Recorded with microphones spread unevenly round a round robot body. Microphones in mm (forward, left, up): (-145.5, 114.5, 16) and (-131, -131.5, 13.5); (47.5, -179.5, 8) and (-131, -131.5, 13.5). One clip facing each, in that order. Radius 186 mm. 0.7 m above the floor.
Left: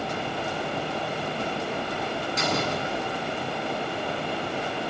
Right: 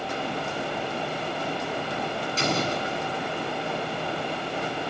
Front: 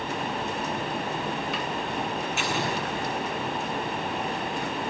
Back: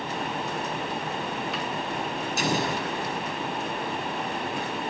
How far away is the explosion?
About 8 m.